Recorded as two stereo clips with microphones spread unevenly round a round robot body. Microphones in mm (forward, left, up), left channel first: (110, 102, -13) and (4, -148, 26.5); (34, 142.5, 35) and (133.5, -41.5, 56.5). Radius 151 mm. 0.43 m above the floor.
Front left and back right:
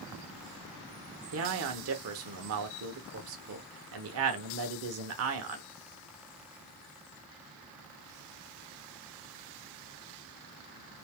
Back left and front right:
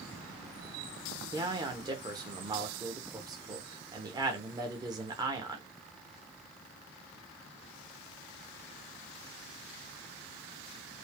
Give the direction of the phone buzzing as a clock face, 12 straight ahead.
I don't hear a phone buzzing.